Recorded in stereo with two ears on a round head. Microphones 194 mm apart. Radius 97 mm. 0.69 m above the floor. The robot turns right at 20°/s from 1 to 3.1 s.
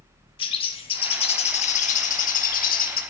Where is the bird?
35° left, 1.2 m; by 3.0 s 75° left, 1.2 m.